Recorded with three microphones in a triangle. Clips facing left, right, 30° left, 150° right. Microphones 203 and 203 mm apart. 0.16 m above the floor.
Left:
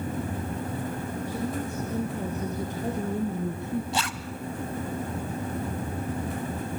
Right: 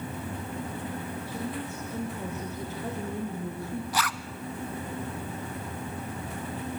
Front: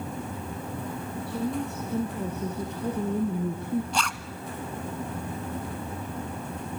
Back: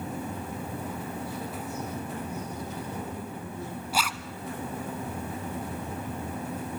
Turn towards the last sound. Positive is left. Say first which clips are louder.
# left 1 dB, even
turn(degrees=130)